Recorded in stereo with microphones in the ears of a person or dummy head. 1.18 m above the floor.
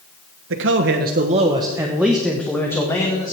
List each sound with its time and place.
0.5 s a man speaking: 65° right (ahead or behind), 1.1 m; by 3.3 s 15° left (ahead or behind), 1.9 m